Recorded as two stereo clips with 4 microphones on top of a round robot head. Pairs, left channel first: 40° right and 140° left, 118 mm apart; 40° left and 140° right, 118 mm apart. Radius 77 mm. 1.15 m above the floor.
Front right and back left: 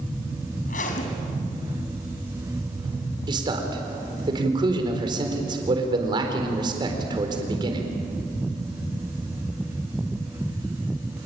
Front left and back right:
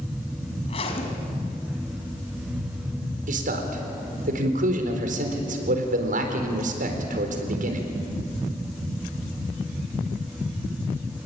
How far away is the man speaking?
About 4 m.